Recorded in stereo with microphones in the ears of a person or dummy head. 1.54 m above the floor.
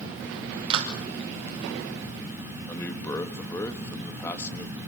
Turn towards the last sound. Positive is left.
turn(degrees=15)  # may be behind; listen again after turning